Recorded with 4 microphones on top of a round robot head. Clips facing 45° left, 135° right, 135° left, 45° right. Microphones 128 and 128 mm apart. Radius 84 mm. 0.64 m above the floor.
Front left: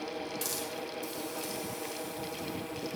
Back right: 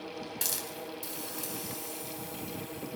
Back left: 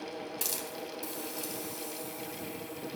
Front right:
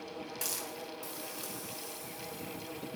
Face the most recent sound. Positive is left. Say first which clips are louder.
# front left 3 dB, back left 3 dB
turn(degrees=-160)